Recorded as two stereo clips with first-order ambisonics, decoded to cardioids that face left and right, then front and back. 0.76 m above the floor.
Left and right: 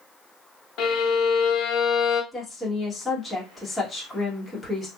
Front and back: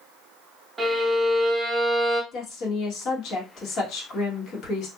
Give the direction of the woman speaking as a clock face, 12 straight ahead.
12 o'clock.